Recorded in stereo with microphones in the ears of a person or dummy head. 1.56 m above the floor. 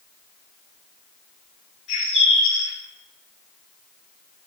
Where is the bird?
40° left (ahead or behind), 0.8 m.